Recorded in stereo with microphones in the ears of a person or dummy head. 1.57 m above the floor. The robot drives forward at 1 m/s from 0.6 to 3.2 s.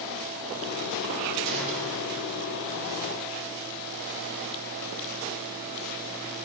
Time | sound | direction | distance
1.4 | a gunshot | 60° right (ahead or behind) | 3.5 m